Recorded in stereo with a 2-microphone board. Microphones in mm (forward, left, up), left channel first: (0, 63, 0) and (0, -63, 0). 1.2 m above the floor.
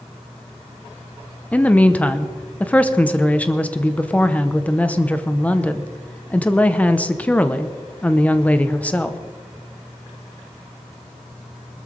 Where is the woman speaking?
10° left (ahead or behind), 0.9 m.